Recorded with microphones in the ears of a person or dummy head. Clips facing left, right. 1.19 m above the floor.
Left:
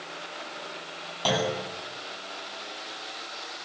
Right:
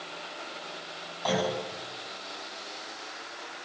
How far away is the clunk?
About 8.5 m.